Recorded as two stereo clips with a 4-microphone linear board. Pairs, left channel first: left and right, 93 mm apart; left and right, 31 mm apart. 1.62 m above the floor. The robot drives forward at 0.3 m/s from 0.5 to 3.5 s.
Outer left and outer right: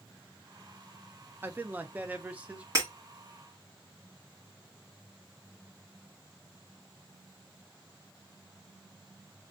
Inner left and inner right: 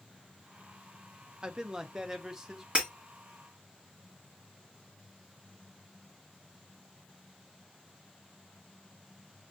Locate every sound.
1.4 s a man speaking: 25° right (ahead or behind), 0.6 m; by 2.6 s 15° right (ahead or behind), 0.9 m
2.8 s breaking glass: 35° right (ahead or behind), 1.8 m